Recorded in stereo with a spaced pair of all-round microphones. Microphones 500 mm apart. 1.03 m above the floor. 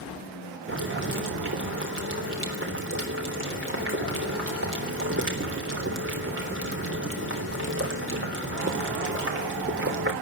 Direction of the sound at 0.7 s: 25° right (ahead or behind).